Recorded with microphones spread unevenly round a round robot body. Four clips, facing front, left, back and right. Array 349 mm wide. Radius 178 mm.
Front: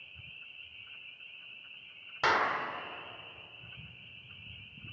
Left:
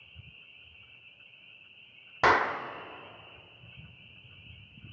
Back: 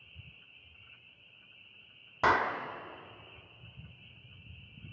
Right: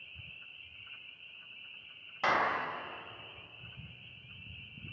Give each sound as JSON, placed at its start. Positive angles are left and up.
{"t": 2.2, "sound": "a clap", "azimuth_deg": 95, "distance_m": 1.4}